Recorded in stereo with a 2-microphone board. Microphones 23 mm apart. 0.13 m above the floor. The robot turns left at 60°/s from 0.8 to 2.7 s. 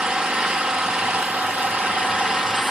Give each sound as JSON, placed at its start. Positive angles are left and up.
{"t": 0.0, "sound": "an engine running", "azimuth_deg": -50, "distance_m": 1.5}